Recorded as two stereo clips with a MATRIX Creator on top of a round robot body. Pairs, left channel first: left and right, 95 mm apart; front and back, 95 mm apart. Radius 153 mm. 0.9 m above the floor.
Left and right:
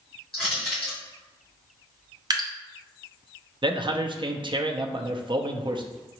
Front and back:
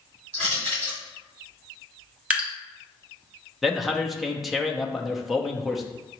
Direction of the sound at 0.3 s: 175° left.